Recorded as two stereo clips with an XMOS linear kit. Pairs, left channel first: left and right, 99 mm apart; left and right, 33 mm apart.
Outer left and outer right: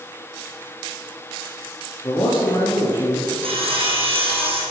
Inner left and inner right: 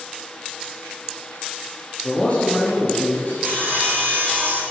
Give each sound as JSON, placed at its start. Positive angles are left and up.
{"t": 2.0, "sound": "a man speaking", "side_deg": 40, "distance_m": 3.0}
{"t": 3.4, "sound": "sawing", "side_deg": -70, "distance_m": 4.0}